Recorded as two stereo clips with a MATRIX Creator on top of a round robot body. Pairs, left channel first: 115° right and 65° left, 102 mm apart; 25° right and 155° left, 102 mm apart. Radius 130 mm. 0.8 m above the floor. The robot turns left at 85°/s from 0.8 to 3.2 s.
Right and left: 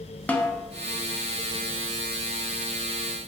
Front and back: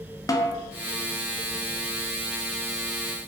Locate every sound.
0.3 s a snare drum: 45° right, 0.5 m